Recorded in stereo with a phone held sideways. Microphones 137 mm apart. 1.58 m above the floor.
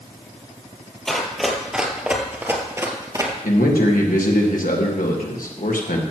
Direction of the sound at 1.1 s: 5° left (ahead or behind).